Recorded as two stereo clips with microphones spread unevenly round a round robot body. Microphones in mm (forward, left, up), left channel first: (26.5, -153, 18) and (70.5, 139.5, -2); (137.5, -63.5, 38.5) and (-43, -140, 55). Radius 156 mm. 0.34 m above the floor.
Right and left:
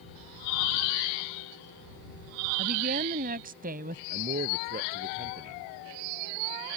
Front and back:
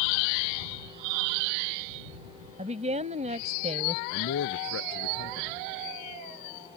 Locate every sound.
2.6 s a woman speaking: 140° left
4.1 s a man speaking: 25° left